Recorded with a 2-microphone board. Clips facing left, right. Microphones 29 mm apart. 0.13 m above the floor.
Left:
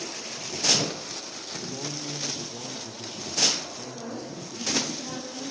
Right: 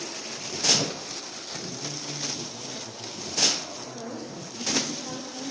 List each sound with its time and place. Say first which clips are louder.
1.6 s a man speaking: left 3 dB; 35° left (ahead or behind), 4 m
3.9 s a woman speaking: left 1 dB; 10° right (ahead or behind), 7 m